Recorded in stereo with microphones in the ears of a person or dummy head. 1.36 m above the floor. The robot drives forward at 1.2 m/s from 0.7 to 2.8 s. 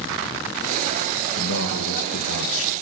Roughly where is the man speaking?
Left.